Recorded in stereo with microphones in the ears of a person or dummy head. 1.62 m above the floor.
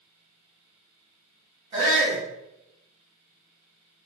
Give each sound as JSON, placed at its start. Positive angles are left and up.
{"t": 1.7, "sound": "a shout", "side_deg": -35, "distance_m": 1.9}